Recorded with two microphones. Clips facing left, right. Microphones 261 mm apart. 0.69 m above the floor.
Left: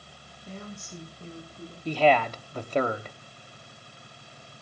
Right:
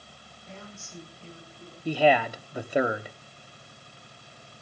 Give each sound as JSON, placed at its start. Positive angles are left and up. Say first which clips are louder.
{"t": 0.5, "sound": "a woman speaking", "louder": "left 5 dB", "side_deg": 40, "distance_m": 6.0}
{"t": 1.9, "sound": "a man speaking", "louder": "even", "side_deg": -10, "distance_m": 1.2}